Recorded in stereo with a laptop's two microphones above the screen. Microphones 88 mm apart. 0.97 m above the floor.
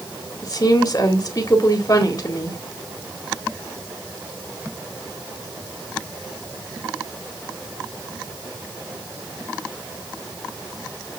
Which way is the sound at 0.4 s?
45° left (ahead or behind).